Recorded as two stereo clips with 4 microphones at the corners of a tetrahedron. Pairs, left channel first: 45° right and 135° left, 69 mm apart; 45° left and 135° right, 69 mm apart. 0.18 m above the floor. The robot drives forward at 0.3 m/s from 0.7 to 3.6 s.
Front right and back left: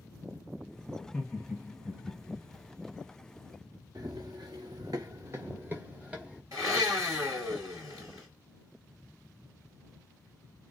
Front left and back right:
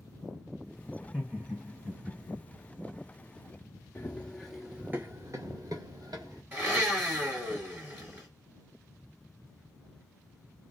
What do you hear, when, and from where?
1.0 s laughter: 75° right, 1.1 m; by 2.5 s 130° right, 1.1 m
4.0 s running footsteps: 105° left, 0.7 m; by 6.4 s 150° right, 1.2 m
6.5 s a blender: 165° left, 2 m